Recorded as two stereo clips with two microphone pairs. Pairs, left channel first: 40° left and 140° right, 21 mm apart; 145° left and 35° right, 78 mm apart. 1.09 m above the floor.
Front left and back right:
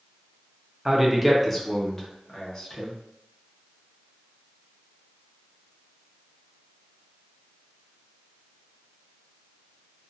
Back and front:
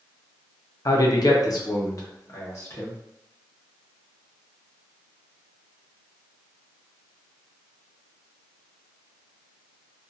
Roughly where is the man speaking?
Behind.